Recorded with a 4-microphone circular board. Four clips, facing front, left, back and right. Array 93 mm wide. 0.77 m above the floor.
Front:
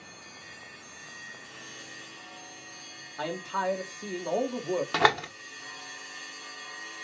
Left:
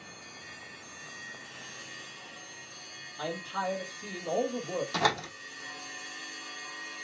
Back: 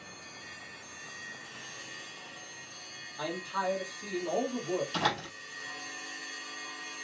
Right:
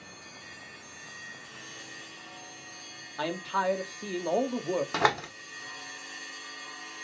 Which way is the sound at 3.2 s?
65° right.